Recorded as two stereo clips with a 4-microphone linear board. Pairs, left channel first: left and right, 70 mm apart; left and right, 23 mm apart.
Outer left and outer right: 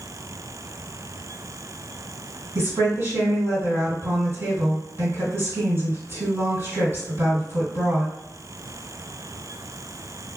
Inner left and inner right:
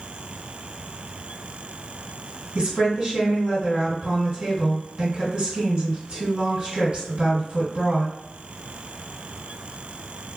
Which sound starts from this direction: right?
A woman speaking, at 2.5 s.